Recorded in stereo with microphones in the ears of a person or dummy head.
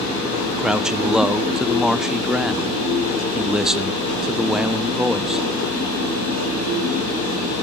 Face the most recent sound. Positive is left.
turn(degrees=0)  # may be behind; listen again after turning